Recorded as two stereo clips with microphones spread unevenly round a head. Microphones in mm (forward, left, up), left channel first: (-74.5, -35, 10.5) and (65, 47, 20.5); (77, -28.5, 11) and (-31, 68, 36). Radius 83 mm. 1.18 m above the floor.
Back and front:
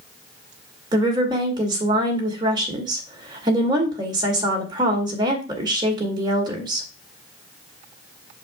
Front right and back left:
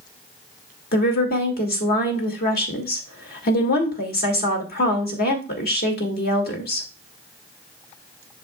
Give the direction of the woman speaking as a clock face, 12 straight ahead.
1 o'clock.